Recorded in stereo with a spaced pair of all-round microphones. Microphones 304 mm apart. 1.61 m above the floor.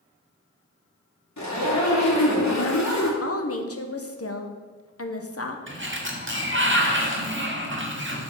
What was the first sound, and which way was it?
A zipper, 65° left (ahead or behind).